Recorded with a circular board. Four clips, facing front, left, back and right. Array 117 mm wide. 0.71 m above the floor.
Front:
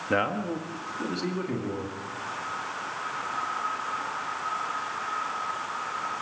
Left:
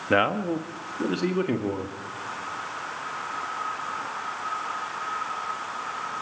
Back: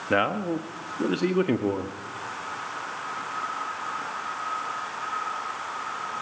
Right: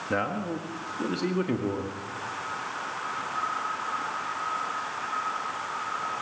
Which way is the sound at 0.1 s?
110° left.